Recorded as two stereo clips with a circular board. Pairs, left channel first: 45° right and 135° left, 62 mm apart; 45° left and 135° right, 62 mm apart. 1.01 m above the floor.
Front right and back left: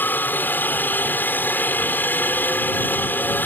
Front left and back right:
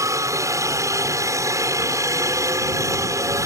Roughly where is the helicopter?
Right.